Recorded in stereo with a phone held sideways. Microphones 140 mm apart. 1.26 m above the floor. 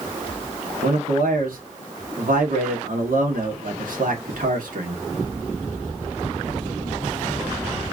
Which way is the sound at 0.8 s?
80° right.